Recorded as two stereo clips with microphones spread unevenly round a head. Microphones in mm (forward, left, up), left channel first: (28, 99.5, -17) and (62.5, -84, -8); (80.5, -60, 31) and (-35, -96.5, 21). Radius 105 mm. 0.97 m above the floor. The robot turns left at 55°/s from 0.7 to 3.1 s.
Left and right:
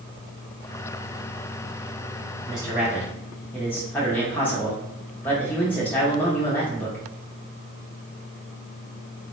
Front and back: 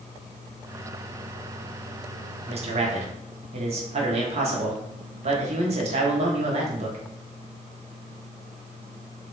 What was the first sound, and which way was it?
A man speaking, 145° right.